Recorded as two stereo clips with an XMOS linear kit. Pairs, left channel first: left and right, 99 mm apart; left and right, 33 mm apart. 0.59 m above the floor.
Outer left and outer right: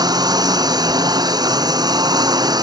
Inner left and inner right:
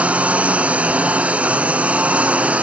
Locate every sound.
0.0 s a lawn mower: 40° right (ahead or behind)